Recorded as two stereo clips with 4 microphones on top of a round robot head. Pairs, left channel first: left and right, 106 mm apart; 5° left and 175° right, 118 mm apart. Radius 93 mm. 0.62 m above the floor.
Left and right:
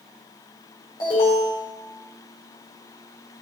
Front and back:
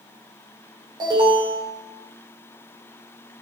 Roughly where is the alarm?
Behind left.